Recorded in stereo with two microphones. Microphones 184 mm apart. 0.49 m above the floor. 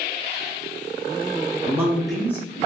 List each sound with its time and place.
1.6 s a man speaking: 20° right (ahead or behind), 0.7 m; by 2.7 s 25° left (ahead or behind), 0.7 m